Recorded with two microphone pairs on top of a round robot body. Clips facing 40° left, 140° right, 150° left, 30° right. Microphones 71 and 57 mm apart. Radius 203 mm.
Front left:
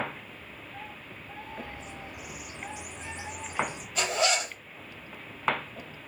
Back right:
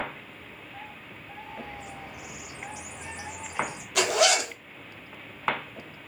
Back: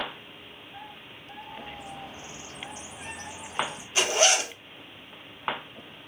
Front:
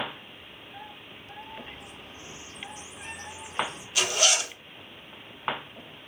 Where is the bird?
145° left, 1.0 m.